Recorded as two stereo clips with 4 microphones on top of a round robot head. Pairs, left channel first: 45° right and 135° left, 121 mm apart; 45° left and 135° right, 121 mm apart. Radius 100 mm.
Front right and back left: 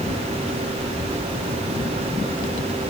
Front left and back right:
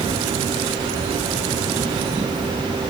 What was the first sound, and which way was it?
Only background noise.